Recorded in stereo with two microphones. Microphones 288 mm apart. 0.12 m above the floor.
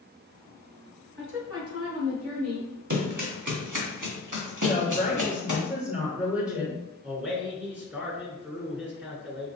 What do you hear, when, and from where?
1.2 s a woman speaking: 40° right (ahead or behind), 1.5 m; by 2.7 s 60° right (ahead or behind), 3 m
2.9 s running footsteps: 70° right (ahead or behind), 1.5 m
4.6 s a woman speaking: 5° right (ahead or behind), 1.9 m
7.0 s a man speaking: 5° right (ahead or behind), 1.2 m